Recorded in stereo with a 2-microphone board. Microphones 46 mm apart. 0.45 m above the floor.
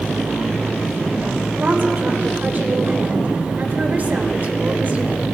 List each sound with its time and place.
1.6 s a woman speaking: 45° right (ahead or behind), 1.6 m